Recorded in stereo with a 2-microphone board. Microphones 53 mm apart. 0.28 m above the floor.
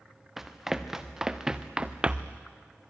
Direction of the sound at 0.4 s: 5° right (ahead or behind).